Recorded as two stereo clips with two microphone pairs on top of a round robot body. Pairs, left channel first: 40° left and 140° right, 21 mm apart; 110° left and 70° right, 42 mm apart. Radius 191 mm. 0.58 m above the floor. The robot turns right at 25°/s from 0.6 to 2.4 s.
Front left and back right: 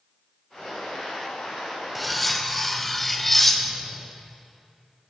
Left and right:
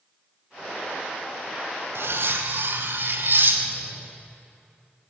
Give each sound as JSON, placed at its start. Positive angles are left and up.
{"t": 1.9, "sound": "cutlery clinking", "azimuth_deg": -45, "distance_m": 0.7}